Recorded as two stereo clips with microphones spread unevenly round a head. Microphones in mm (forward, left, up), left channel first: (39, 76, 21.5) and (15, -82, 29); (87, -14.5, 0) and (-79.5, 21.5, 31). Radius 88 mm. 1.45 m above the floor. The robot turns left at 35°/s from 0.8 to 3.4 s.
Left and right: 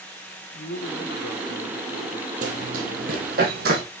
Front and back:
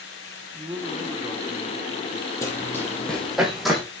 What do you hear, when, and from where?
0.5 s a man speaking: 105° left, 1.2 m; by 2.3 s 50° left, 1.2 m
2.4 s running footsteps: 90° right, 2 m; by 3.8 s 105° right, 2.5 m